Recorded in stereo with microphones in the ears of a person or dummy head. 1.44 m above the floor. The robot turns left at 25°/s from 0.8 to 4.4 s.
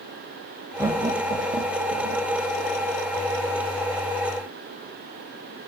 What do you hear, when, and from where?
0.8 s laughter: 15° right (ahead or behind), 1.0 m; by 2.3 s 50° right (ahead or behind), 1.0 m